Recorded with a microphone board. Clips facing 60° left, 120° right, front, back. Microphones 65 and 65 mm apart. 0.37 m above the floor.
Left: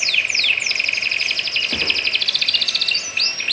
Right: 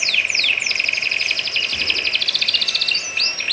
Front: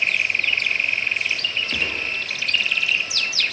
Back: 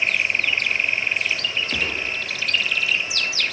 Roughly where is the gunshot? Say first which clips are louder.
Left 1 dB, even; left.